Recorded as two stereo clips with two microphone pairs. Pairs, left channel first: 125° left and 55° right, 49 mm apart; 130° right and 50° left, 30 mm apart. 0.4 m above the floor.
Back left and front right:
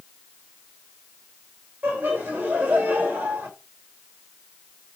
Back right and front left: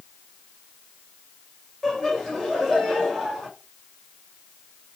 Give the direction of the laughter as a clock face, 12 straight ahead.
2 o'clock.